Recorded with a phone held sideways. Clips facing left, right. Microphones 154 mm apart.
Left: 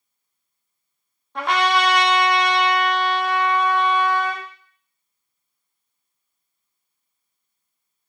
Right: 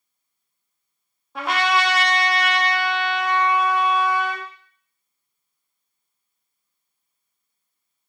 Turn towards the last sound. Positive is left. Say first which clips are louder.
# left 2 dB
turn(degrees=-5)  # may be behind; listen again after turning